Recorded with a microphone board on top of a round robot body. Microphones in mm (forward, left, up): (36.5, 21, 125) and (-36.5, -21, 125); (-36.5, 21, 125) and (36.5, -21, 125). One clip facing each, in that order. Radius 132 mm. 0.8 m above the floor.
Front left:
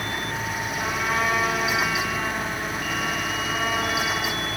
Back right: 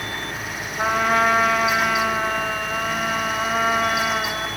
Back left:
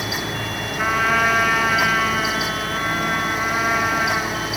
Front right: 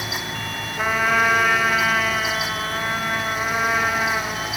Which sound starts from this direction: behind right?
A trumpet, at 0.8 s.